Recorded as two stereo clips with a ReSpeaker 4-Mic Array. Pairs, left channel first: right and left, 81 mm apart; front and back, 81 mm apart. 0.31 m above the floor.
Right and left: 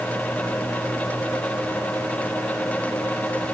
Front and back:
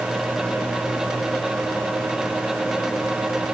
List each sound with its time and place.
Only background noise.